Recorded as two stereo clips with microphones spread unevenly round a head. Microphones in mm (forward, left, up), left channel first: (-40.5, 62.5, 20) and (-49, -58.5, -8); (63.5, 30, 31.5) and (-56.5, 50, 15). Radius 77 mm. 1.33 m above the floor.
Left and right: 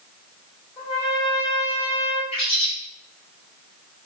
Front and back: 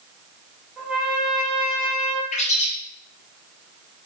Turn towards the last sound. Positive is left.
turn(degrees=25)